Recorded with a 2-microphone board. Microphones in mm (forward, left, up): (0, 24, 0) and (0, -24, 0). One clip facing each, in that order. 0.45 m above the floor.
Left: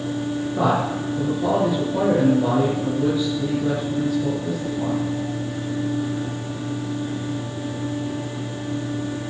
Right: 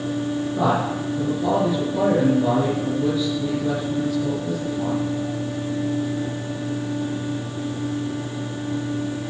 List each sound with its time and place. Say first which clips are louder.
0.6 s a man speaking: left 1 dB; 20° left (ahead or behind), 6.5 m